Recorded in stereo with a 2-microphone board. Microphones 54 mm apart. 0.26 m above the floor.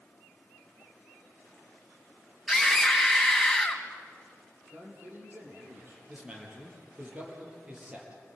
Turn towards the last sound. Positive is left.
turn(degrees=-20)  # may be behind; listen again after turning